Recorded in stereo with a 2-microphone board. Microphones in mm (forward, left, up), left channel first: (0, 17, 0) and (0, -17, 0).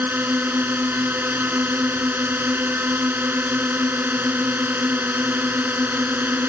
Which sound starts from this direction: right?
A drone, at 0.0 s.